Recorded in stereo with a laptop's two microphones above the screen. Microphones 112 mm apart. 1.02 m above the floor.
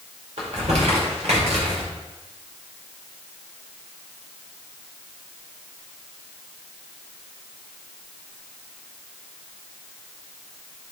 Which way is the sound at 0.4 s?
70° right (ahead or behind).